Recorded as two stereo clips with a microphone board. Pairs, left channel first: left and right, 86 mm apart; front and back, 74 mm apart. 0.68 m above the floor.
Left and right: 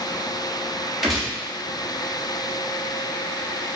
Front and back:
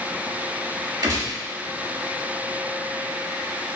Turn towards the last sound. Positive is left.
turn(degrees=180)